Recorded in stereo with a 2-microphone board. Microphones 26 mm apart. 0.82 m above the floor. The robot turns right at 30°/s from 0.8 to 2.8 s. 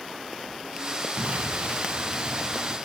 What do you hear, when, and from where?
1.2 s an explosion: 90° right, 1.5 m; by 2.8 s 40° right, 1.5 m